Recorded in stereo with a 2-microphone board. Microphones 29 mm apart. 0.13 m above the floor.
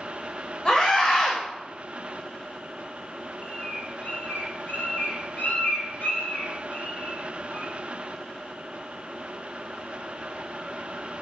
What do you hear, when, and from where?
0.7 s a scream: 35° left (ahead or behind), 7.5 m
3.4 s a bird: 65° left (ahead or behind), 4.5 m